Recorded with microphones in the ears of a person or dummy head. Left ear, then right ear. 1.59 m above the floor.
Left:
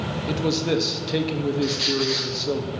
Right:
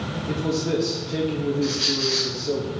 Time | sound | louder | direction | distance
0.3 | a man speaking | left 1 dB | 35° left (ahead or behind) | 0.9 m
1.6 | a squeak | even | 10° left (ahead or behind) | 0.9 m